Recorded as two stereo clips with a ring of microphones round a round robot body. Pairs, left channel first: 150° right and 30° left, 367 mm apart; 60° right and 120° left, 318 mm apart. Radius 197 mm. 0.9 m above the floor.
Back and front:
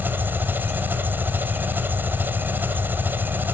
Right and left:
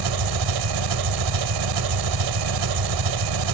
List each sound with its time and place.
0.0 s an engine running: 115° left, 1.4 m